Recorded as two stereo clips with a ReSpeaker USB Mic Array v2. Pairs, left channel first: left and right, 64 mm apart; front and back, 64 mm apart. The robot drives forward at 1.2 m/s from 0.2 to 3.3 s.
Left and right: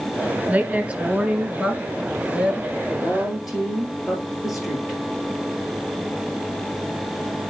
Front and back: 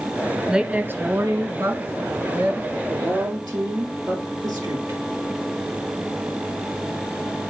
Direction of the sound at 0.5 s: 110° right.